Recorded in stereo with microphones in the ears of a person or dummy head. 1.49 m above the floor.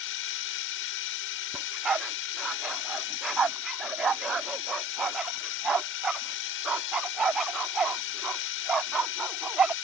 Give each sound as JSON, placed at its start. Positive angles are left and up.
{"t": 0.0, "sound": "a drone", "side_deg": 70}
{"t": 1.5, "sound": "a dog barking", "side_deg": -5}